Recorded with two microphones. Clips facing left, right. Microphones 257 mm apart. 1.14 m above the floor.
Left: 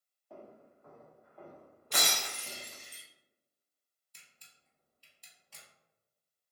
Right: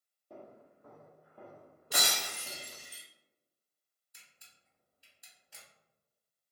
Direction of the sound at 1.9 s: 10° right (ahead or behind).